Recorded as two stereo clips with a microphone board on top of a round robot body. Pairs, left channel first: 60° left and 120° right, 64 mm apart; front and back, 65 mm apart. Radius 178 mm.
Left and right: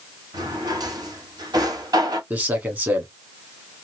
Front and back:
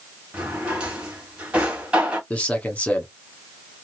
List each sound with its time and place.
0.3 s a drawer: 105° right, 2 m
2.3 s a man speaking: 65° right, 1.9 m